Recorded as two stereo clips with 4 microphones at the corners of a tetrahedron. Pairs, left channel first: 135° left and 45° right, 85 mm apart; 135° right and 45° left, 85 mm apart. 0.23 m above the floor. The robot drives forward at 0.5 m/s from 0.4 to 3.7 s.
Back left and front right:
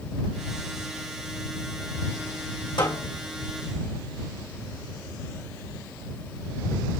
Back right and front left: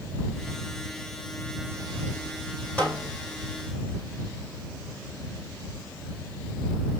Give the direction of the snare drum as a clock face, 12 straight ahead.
7 o'clock.